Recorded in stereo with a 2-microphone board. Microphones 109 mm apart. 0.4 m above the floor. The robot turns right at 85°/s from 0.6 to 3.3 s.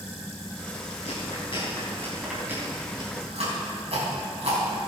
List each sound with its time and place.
1.1 s chewing: 65° left (ahead or behind), 3.5 m; by 4.6 s 70° right (ahead or behind), 3.5 m